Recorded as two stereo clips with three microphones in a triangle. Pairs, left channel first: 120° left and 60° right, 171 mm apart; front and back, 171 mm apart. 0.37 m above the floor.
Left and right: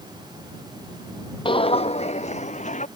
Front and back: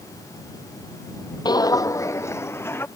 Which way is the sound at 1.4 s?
65° left.